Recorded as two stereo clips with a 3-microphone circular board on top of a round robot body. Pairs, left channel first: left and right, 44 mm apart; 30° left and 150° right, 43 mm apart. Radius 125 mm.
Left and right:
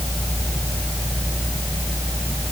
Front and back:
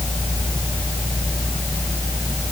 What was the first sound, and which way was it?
Only background noise.